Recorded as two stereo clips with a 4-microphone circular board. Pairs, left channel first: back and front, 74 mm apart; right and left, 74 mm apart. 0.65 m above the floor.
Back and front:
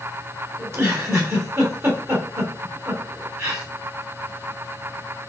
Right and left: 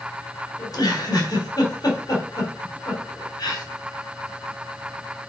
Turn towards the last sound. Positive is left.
turn(degrees=-55)